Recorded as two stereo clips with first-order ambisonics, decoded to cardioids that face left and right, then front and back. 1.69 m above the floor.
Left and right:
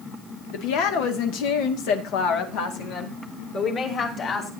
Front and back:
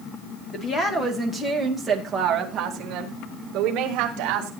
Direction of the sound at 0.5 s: 60° left.